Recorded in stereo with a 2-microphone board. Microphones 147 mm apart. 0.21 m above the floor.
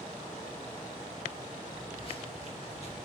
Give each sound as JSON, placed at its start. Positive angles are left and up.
{"t": 1.7, "sound": "footsteps", "side_deg": 35, "distance_m": 7.0}